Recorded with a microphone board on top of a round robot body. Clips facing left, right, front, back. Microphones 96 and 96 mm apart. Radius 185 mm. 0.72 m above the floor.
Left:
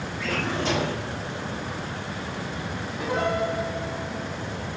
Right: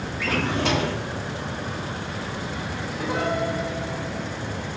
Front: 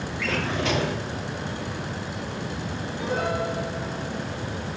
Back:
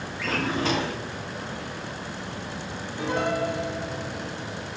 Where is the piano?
Straight behind, 3 m.